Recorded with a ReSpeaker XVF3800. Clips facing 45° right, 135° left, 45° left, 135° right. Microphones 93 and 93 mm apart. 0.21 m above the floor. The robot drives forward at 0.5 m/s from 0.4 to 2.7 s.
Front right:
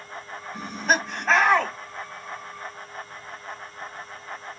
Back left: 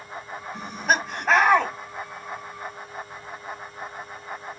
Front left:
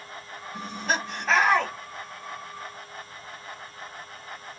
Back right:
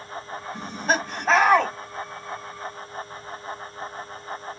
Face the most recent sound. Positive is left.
turn(degrees=-165)